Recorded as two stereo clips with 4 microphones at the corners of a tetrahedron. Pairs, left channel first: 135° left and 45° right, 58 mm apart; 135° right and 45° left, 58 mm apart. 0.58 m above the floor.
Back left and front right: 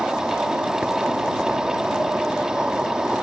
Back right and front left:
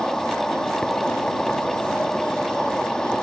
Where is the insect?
85° right.